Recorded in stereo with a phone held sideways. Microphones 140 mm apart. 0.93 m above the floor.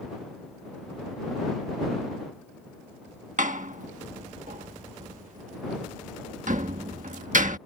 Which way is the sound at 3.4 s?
65° right (ahead or behind).